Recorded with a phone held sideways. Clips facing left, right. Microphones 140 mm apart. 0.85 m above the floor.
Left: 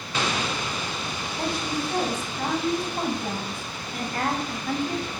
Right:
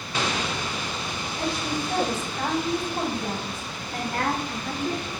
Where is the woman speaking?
70° right (ahead or behind), 5 m.